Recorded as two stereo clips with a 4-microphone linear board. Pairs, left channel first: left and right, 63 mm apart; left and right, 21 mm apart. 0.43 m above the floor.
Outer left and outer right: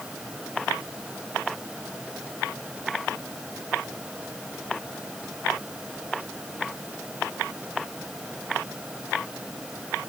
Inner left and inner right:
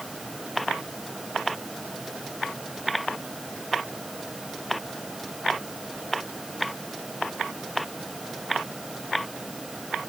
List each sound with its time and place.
Only background noise.